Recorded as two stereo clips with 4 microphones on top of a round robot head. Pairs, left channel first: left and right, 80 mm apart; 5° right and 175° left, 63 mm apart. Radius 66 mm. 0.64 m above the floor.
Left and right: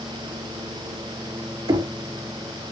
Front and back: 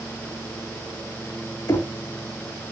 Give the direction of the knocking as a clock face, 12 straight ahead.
2 o'clock.